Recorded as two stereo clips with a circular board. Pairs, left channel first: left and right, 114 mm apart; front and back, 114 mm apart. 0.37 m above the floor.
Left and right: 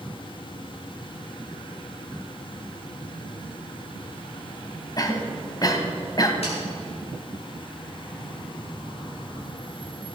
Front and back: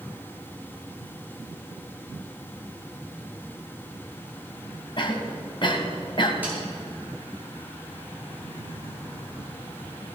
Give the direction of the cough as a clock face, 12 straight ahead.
11 o'clock.